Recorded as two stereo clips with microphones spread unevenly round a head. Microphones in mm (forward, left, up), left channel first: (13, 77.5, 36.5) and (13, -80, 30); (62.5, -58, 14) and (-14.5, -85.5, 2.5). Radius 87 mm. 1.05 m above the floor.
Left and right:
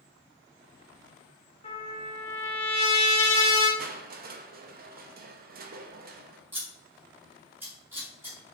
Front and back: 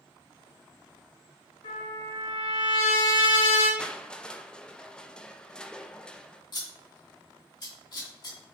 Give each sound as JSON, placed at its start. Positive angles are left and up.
{"t": 1.6, "sound": "a trumpet", "azimuth_deg": 35, "distance_m": 1.9}
{"t": 3.8, "sound": "crushing", "azimuth_deg": -65, "distance_m": 0.6}
{"t": 6.5, "sound": "scissors", "azimuth_deg": -15, "distance_m": 2.0}